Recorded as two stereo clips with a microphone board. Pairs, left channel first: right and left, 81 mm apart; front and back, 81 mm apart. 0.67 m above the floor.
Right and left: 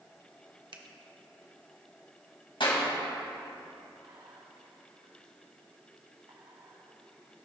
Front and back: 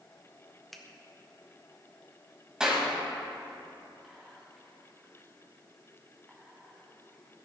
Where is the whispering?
95° left, 1.0 m.